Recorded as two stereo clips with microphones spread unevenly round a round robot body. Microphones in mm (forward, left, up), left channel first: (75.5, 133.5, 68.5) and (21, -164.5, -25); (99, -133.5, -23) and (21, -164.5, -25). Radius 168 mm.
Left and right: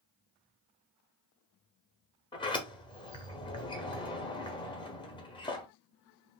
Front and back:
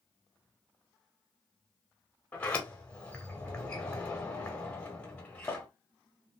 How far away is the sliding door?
About 0.8 m.